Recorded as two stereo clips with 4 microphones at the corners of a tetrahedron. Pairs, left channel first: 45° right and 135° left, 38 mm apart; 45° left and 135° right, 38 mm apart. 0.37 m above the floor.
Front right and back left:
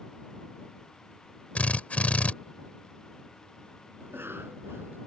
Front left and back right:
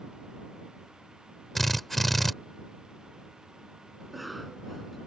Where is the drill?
40° right.